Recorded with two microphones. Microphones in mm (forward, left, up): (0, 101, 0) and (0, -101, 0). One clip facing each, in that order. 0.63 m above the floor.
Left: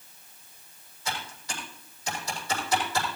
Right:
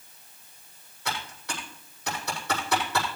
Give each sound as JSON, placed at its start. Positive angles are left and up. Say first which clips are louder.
{"t": 1.1, "sound": "typing on a keyboard", "louder": "right 1 dB", "side_deg": -60, "distance_m": 7.5}